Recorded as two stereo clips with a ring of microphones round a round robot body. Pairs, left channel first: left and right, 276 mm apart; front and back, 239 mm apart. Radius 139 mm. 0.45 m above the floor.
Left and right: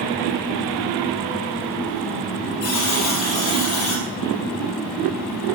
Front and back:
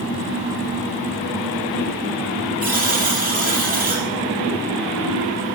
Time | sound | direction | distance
2.6 | a buzzer | 125° left | 4 m